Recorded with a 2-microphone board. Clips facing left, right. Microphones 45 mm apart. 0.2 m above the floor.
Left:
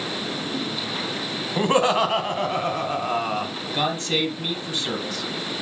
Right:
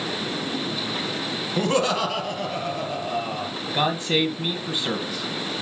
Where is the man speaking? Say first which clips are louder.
Right 2 dB; 15° right (ahead or behind), 1.2 m.